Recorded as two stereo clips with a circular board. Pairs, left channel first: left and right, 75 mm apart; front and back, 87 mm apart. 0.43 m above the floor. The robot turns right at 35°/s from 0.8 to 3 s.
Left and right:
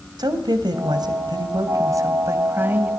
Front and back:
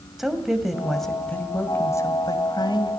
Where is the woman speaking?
95° right, 2 m; by 2.9 s 20° right, 2 m.